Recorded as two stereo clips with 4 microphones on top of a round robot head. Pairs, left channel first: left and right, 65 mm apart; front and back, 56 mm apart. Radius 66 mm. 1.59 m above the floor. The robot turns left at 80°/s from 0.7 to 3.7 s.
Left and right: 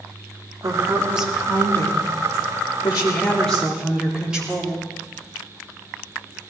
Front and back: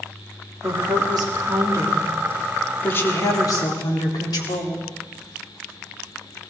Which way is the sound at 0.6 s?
130° right.